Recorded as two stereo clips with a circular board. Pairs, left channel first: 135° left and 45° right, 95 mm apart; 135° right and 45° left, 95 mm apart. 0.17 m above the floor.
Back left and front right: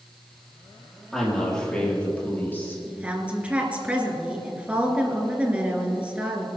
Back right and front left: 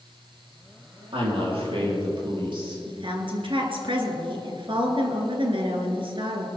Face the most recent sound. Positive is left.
turn(degrees=30)